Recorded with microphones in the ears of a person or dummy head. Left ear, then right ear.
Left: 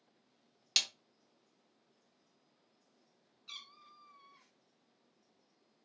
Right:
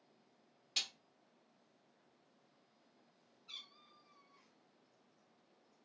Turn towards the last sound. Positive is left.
turn(degrees=65)  # may be behind; listen again after turning